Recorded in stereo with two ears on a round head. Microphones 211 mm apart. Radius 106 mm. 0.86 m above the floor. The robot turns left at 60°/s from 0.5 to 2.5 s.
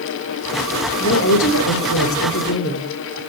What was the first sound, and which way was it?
A woman speaking, 135° left.